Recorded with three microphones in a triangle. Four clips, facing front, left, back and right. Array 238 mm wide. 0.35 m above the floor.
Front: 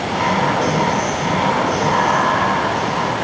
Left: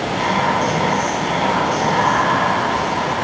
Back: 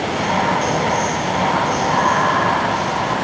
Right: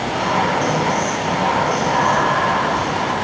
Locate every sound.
0.1 s whispering: 15° left, 7 m